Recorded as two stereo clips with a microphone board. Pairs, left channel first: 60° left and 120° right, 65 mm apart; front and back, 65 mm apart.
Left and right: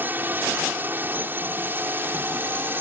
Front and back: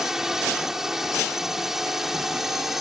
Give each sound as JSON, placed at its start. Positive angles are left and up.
{"t": 0.0, "sound": "a drone", "azimuth_deg": -105}